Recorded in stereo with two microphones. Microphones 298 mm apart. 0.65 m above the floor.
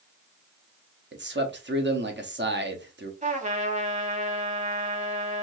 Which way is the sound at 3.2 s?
25° right (ahead or behind).